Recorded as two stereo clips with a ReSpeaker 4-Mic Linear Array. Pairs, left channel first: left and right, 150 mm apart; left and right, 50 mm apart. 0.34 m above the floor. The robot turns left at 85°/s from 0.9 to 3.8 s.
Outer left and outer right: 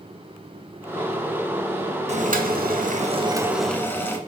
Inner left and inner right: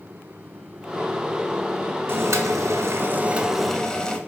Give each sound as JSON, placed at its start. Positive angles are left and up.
{"t": 2.1, "sound": "boiling", "azimuth_deg": -50, "distance_m": 0.5}